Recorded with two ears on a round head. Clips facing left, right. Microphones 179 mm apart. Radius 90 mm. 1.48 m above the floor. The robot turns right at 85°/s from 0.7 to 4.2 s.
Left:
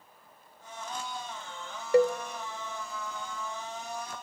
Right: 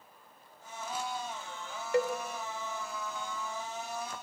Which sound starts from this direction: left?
A cowbell, at 1.9 s.